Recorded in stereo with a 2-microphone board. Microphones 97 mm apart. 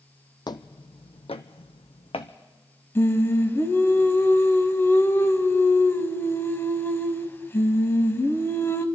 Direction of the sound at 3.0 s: 25° left (ahead or behind).